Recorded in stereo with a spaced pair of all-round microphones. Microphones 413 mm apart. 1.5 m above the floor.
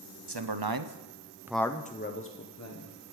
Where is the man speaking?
75° right (ahead or behind), 1.0 m; by 2.9 s 40° left (ahead or behind), 1.5 m.